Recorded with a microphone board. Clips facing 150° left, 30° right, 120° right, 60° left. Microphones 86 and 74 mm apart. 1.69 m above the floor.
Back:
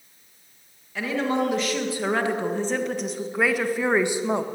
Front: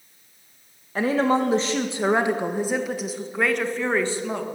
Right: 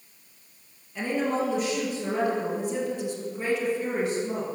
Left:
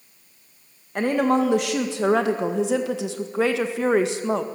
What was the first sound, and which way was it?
A woman speaking, 25° left.